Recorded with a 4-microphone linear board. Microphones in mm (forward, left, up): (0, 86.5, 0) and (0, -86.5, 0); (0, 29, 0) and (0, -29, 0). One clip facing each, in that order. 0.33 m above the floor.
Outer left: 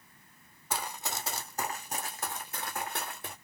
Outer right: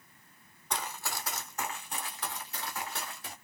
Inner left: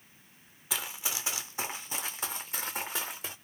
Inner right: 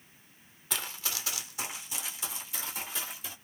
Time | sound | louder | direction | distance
0.7 | running footsteps | outer left 1 dB, inner left 1 dB | 5° left (ahead or behind) | 0.8 m